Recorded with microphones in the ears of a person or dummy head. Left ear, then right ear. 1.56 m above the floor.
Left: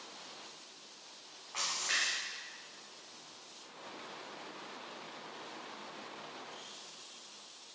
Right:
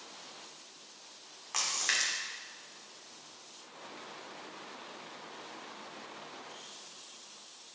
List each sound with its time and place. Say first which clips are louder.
1.5 s a splash: right 3 dB; 70° right (ahead or behind), 0.8 m